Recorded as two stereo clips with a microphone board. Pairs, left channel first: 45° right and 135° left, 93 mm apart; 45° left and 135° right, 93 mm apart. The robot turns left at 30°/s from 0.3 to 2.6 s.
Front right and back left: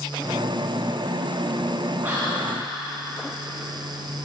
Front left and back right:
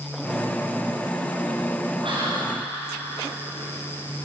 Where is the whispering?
155° right, 5 m; by 2.5 s 165° right, 5 m.